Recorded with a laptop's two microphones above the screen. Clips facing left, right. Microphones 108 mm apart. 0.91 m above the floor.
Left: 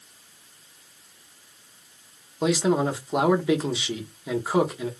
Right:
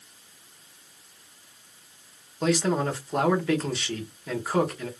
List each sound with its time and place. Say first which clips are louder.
2.4 s a man speaking: left 2 dB; 10° left (ahead or behind), 0.8 m